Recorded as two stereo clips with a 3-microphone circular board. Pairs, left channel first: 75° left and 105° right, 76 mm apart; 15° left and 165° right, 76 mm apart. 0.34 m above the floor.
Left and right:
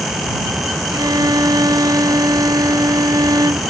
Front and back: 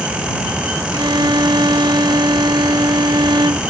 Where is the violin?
140° right.